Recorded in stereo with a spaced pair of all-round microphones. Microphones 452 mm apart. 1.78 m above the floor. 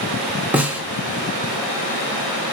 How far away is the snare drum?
About 0.5 m.